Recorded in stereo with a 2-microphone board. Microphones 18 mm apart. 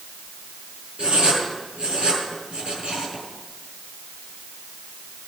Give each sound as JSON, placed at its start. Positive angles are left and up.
{"t": 1.0, "sound": "writing", "side_deg": -65, "distance_m": 5.5}